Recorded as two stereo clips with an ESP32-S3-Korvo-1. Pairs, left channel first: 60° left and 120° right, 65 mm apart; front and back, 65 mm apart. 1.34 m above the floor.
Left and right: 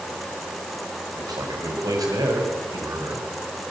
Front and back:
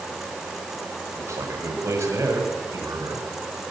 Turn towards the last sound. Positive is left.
turn(degrees=-135)